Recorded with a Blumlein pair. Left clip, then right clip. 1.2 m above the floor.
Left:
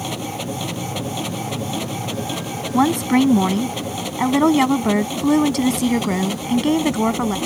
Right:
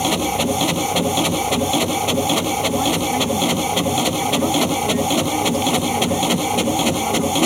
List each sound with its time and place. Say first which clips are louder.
0.0 s a machine running: right 8 dB; 25° right
2.7 s a woman speaking: left 1 dB; 30° left